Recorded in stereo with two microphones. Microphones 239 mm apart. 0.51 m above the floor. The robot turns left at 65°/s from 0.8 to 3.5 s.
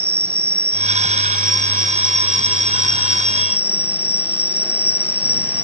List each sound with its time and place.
0.0 s an insect: 80° right; by 5.7 s 105° left